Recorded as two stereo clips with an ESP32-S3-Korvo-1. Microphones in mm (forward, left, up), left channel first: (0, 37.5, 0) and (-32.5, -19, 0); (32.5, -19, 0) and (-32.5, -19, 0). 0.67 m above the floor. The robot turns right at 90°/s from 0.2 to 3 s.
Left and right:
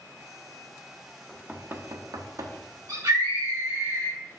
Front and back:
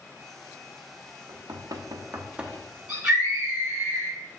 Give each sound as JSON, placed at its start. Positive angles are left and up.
{"t": 1.3, "sound": "knocking", "azimuth_deg": 150, "distance_m": 0.7}
{"t": 2.9, "sound": "a scream", "azimuth_deg": -115, "distance_m": 1.8}